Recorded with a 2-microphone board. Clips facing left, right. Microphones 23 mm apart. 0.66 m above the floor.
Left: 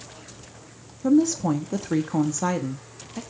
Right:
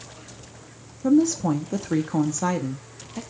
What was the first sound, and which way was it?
A woman speaking, centre (ahead or behind).